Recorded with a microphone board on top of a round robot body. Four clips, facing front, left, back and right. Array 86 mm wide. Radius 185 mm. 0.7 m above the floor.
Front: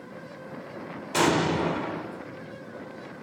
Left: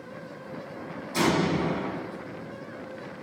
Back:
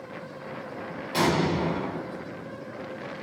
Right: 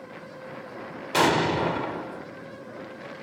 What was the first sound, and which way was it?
An explosion, 75° right.